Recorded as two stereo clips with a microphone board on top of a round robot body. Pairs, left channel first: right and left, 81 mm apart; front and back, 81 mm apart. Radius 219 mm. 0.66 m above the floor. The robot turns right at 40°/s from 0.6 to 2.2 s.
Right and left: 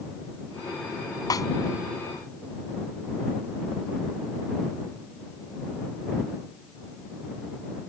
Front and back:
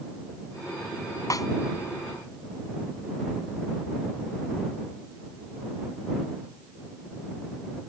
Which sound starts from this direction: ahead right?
A snare drum, at 1.3 s.